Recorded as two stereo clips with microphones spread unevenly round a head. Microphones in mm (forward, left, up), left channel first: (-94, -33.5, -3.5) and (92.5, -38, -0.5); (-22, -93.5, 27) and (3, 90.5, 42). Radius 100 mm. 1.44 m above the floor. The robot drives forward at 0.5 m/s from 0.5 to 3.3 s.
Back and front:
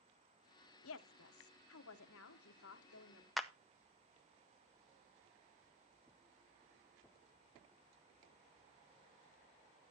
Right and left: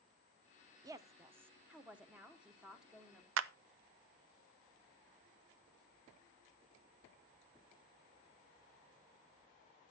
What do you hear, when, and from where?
0.8 s a woman speaking: 155° left, 0.7 m; by 3.3 s 170° left, 1.9 m
3.4 s a clap: 85° left, 0.5 m